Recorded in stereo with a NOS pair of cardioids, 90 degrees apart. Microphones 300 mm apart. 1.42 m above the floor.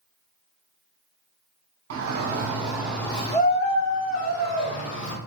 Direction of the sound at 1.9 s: 45° right.